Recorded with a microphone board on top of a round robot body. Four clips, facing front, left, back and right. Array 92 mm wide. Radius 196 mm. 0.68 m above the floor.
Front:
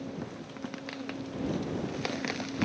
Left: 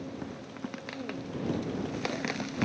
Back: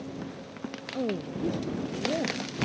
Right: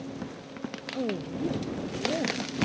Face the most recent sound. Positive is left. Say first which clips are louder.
# right 9 dB, back 10 dB
turn(degrees=-140)